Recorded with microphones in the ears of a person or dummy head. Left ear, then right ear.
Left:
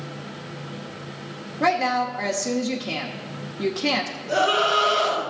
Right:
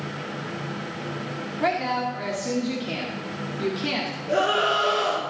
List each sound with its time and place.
1.6 s a woman speaking: 25° left (ahead or behind), 0.9 m
4.3 s a scream: 10° left (ahead or behind), 5 m